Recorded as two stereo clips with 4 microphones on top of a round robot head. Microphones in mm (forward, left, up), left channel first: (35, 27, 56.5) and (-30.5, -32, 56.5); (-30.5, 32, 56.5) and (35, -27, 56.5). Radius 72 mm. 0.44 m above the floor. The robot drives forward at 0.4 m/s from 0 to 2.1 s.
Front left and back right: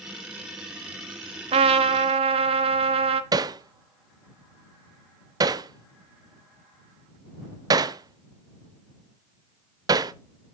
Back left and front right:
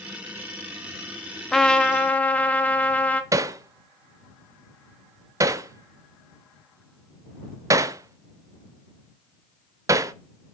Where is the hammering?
95° right, 0.7 m.